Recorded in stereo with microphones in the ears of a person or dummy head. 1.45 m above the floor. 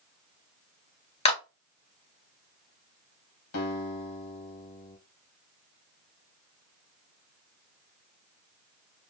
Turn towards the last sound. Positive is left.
turn(degrees=90)